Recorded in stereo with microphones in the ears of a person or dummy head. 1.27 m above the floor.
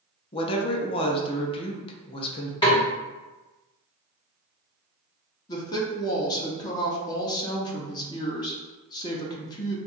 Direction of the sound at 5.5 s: 15° left (ahead or behind).